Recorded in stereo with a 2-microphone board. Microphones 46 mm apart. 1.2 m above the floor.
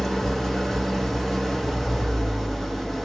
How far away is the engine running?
About 1.1 m.